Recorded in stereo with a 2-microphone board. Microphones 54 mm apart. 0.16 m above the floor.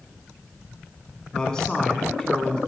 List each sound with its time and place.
1.3 s a man speaking: 15° left (ahead or behind), 1.1 m